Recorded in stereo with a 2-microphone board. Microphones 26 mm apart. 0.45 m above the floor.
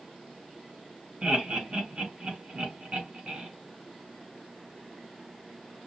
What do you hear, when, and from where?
1.2 s laughter: 40° right (ahead or behind), 3 m